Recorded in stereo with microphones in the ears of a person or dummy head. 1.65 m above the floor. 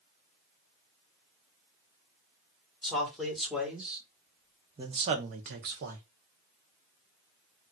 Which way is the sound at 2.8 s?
5° left (ahead or behind).